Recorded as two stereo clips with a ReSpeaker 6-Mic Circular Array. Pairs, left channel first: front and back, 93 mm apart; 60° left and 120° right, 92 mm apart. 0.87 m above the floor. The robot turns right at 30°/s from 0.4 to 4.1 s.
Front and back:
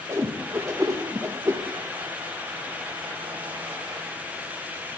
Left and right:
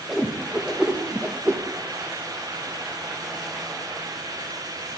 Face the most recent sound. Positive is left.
turn(degrees=-95)